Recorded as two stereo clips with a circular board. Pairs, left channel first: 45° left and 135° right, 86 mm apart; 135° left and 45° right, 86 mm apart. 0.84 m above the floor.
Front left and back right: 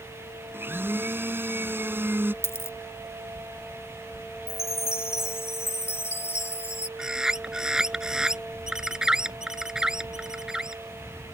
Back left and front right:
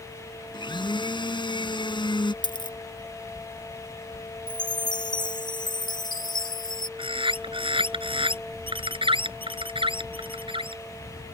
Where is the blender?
160° left.